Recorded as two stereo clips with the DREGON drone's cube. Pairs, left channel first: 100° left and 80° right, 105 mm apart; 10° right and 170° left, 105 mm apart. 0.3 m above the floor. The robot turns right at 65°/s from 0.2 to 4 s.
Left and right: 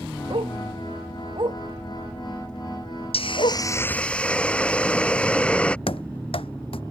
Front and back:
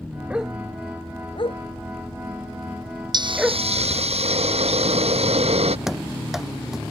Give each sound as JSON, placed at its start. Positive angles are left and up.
{"t": 0.3, "sound": "a dog barking", "azimuth_deg": -115}
{"t": 3.1, "sound": "a hiss", "azimuth_deg": 125}
{"t": 5.9, "sound": "running footsteps", "azimuth_deg": 85}